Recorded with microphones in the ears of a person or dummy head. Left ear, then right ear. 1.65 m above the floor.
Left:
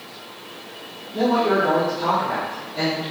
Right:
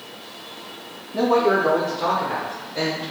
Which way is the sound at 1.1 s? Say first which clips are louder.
Right 1 dB; 80° right.